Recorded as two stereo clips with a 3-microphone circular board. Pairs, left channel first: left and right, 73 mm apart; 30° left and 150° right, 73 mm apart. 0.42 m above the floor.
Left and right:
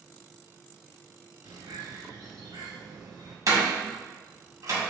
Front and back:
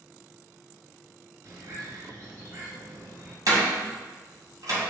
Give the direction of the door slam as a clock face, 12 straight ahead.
4 o'clock.